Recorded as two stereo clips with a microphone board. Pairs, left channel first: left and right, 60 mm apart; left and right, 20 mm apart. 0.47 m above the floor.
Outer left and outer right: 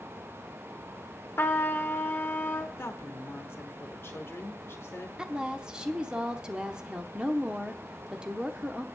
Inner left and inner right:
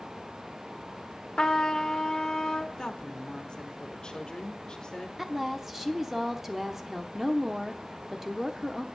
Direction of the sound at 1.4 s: 40° left (ahead or behind).